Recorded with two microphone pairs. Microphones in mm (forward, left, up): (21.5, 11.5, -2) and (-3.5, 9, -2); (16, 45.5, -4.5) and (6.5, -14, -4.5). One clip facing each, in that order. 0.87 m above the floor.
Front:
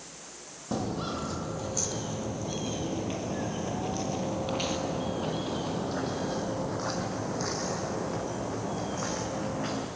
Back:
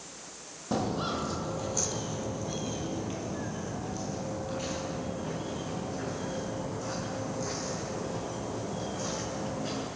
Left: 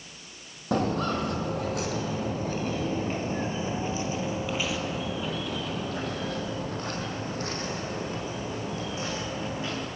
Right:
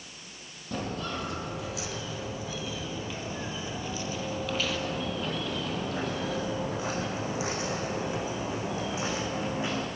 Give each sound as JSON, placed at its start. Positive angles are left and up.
{"t": 0.7, "sound": "footsteps", "azimuth_deg": 105, "distance_m": 1.8}